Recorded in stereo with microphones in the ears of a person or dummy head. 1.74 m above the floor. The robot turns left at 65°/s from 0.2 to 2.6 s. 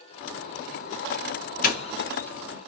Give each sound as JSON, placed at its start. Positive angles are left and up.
{"t": 1.6, "sound": "a doorbell", "side_deg": 50, "distance_m": 1.2}